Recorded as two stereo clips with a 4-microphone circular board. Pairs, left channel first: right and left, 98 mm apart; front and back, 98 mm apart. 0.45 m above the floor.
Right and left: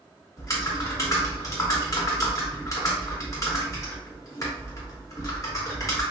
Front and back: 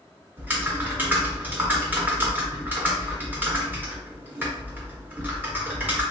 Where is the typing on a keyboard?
125° right, 0.9 m.